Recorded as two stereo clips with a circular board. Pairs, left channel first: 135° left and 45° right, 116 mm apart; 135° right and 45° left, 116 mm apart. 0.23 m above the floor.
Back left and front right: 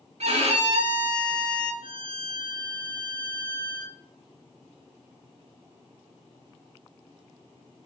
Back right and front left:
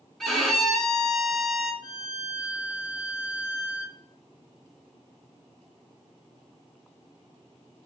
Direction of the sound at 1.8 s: 10° right.